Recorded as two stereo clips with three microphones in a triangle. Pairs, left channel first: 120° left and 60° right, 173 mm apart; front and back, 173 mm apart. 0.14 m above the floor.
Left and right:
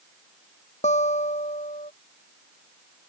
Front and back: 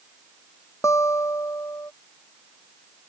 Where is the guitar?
75° left.